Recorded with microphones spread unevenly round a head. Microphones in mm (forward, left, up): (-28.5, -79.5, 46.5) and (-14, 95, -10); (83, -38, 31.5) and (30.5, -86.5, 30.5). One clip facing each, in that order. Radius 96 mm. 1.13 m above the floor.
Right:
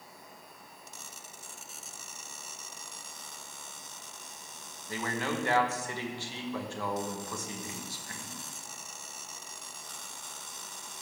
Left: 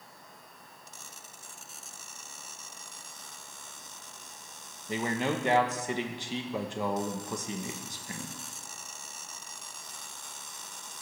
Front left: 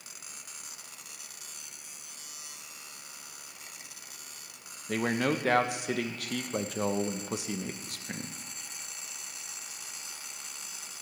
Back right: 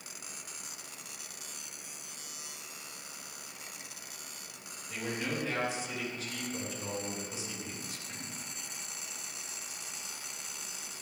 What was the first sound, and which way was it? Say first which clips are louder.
A man speaking: left 4 dB, front left 8 dB; 20° left.